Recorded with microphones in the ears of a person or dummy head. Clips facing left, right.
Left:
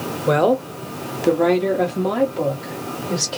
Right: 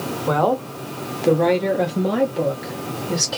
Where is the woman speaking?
25° left (ahead or behind), 0.6 m; by 3.4 s 15° right (ahead or behind), 1.4 m.